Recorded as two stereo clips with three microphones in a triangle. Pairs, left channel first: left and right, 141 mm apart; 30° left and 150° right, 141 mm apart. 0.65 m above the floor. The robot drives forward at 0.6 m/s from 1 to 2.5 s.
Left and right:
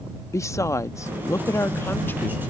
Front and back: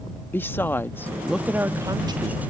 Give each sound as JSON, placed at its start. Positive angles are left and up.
{"t": 0.3, "sound": "a woman speaking", "azimuth_deg": 80}